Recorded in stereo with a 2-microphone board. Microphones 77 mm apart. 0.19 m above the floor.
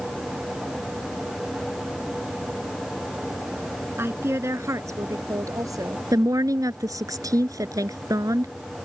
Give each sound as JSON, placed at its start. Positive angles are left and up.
{"t": 4.0, "sound": "a woman speaking", "side_deg": -30}
{"t": 6.1, "sound": "a woman speaking", "side_deg": -50}